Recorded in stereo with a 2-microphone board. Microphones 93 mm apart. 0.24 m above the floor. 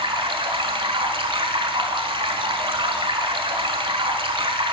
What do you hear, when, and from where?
0.0 s running water: 70° right (ahead or behind), 0.9 m